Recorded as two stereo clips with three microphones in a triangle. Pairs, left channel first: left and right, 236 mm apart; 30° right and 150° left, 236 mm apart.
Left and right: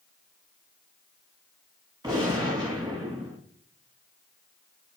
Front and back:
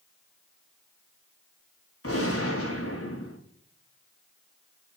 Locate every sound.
2.0 s a gunshot: 15° right, 6.5 m